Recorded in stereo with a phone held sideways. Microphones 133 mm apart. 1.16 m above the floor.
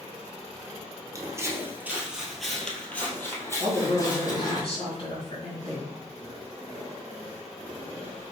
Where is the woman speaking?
40° left (ahead or behind), 1.9 m.